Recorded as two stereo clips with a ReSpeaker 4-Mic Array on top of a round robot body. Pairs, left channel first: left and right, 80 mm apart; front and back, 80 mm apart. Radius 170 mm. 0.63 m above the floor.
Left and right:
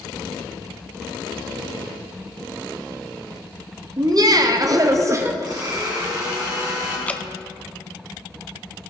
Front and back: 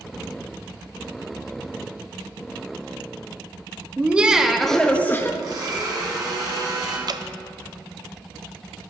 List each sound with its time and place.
4.0 s laughter: 110° right, 1.0 m; by 5.3 s 45° right, 0.8 m
5.4 s a blender: 135° right, 1.8 m
7.1 s dripping: 160° left, 0.6 m